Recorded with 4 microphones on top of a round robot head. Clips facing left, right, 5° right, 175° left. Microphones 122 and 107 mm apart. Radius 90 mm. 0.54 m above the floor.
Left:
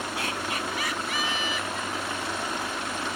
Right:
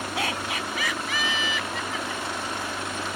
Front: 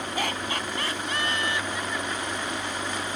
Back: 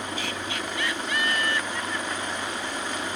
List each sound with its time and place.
0.2 s laughter: 60° right; by 2.5 s 100° right